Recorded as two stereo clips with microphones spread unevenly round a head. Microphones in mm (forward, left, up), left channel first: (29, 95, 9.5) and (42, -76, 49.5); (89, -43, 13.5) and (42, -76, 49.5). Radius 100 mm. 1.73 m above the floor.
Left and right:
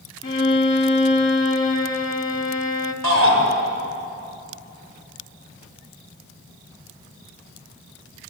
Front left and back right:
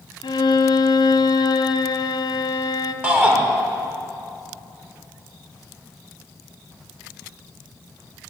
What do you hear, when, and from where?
0.2 s a violin: 25° left, 1.5 m
3.0 s a shout: 85° right, 7 m